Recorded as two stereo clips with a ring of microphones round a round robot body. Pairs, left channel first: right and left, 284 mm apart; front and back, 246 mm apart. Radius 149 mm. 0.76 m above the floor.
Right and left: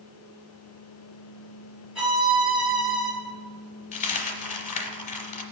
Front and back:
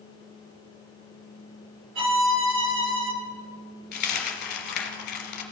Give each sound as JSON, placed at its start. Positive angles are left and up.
{"t": 1.9, "sound": "a violin", "azimuth_deg": 175, "distance_m": 1.9}
{"t": 3.9, "sound": "a dropped coin", "azimuth_deg": -35, "distance_m": 0.9}